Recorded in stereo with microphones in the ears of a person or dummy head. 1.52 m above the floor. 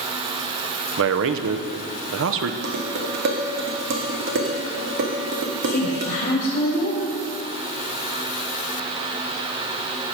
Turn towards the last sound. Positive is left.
turn(degrees=40)  # may be behind; listen again after turning